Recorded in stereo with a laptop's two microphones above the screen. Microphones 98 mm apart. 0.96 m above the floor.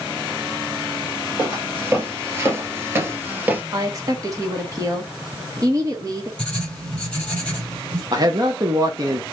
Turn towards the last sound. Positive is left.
turn(degrees=-40)  # may be behind; listen again after turning